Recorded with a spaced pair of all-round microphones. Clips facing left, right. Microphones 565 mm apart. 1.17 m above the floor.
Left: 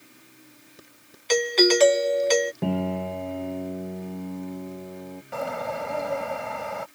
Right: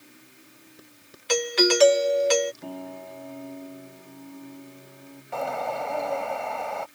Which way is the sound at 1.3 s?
35° right (ahead or behind).